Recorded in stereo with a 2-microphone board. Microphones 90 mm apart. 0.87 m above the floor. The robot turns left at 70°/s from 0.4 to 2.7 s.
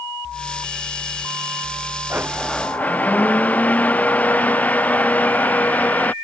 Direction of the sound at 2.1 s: 155° right.